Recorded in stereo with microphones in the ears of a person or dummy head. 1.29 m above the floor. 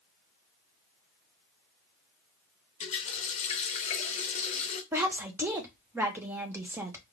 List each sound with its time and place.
2.8 s a running tap: 35° left (ahead or behind), 0.9 m
4.9 s a woman speaking: 10° right (ahead or behind), 1.0 m